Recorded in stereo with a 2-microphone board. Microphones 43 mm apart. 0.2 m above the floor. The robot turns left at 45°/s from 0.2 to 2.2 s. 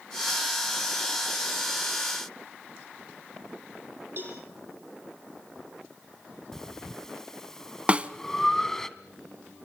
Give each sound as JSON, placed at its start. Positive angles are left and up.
{"t": 4.2, "sound": "a cowbell", "side_deg": -50, "distance_m": 8.0}
{"t": 6.5, "sound": "breathing", "side_deg": 10, "distance_m": 1.2}
{"t": 7.9, "sound": "a snare drum", "side_deg": -25, "distance_m": 0.9}